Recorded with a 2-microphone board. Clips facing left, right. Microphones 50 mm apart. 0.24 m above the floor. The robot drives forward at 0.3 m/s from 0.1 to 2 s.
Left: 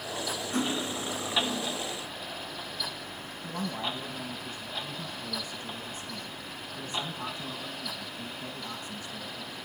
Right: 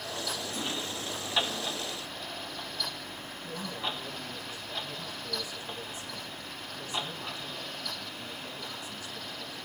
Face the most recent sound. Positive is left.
turn(degrees=40)  # may be behind; listen again after turning